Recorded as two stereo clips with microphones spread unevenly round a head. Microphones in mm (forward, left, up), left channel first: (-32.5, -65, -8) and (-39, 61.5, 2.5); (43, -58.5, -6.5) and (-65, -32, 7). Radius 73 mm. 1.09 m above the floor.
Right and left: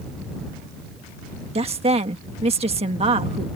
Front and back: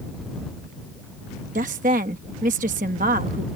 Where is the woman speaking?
130° left.